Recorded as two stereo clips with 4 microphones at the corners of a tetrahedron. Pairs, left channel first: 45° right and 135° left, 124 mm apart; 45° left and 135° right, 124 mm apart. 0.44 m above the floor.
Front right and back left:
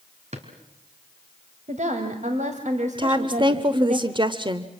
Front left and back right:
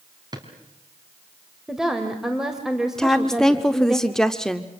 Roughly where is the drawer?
Behind.